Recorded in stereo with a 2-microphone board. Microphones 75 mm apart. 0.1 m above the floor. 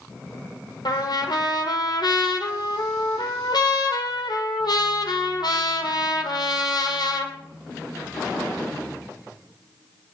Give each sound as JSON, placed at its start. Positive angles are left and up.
{"t": 0.8, "sound": "a trumpet", "side_deg": 70, "distance_m": 2.5}